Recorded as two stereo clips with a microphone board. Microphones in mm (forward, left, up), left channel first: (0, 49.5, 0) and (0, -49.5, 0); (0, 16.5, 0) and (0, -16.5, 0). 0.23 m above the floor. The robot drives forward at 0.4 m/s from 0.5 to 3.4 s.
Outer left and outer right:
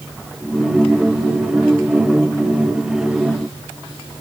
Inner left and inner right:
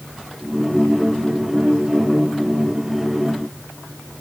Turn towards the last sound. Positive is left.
No sound to turn to.